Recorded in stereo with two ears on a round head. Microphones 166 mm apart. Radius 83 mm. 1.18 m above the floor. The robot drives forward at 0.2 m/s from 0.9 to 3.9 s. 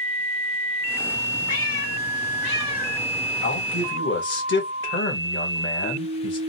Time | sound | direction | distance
1.5 | a cat meowing | 75° left (ahead or behind) | 1.8 m
3.4 | a man speaking | 70° left (ahead or behind) | 1.7 m